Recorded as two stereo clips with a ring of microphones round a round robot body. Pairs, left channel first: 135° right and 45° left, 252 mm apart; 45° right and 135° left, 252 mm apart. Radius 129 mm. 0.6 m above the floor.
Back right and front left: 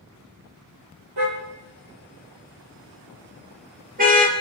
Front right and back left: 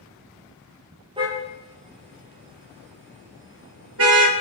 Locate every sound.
1.2 s a car horn: 65° left, 6.5 m; by 4.3 s 105° left, 5 m